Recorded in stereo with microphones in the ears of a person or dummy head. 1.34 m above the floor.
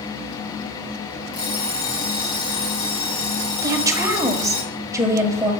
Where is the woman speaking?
20° right (ahead or behind), 1.3 m.